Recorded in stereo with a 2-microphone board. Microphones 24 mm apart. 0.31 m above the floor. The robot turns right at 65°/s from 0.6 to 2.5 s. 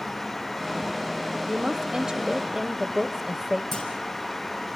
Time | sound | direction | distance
1.5 | a woman speaking | 105° right | 1.0 m
3.7 | a clunk | 15° left (ahead or behind) | 6.5 m